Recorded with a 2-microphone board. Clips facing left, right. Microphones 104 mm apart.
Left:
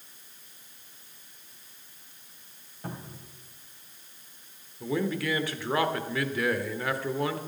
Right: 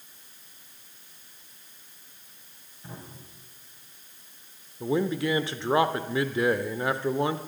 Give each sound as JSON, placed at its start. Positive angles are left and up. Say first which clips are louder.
{"t": 2.8, "sound": "a cupboard door", "louder": "left 4 dB", "side_deg": 55, "distance_m": 3.0}
{"t": 4.8, "sound": "a man speaking", "louder": "right 3 dB", "side_deg": -25, "distance_m": 0.9}